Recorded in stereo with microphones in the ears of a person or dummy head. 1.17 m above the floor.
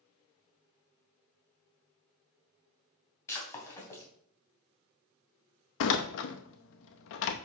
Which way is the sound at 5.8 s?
65° left (ahead or behind).